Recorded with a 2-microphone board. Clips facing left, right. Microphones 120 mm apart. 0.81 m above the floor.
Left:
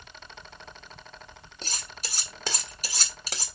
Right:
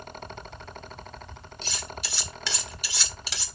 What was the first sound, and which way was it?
Cutlery clinking, 40° left (ahead or behind).